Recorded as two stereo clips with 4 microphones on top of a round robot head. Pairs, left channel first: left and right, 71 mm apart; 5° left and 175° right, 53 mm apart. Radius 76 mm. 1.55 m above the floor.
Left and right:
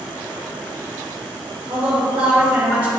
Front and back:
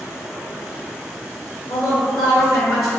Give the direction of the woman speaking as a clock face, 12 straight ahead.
3 o'clock.